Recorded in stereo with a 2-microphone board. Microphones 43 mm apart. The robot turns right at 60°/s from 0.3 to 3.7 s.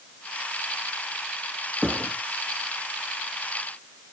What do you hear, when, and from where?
1.8 s a thud: 5° left (ahead or behind), 6 m; by 2.1 s 15° right (ahead or behind), 6 m